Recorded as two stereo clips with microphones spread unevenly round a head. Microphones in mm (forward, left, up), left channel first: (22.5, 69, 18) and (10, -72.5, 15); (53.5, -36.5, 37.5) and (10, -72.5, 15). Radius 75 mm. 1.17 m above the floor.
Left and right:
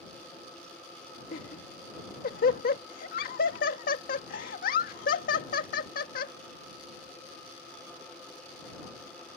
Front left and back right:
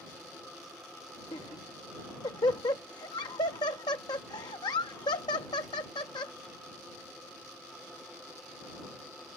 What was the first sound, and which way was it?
Laughter, 60° left.